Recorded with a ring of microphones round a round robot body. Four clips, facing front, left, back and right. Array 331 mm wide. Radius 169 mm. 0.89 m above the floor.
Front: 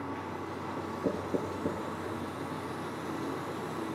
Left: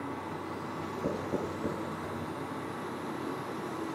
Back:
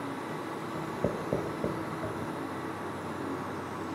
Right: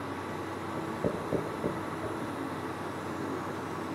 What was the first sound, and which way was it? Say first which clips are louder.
Writing: right 2 dB, back 1 dB; 160° right.